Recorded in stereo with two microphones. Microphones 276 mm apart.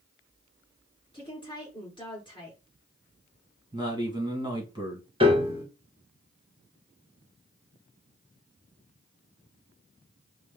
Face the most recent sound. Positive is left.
turn(degrees=-20)  # may be behind; listen again after turning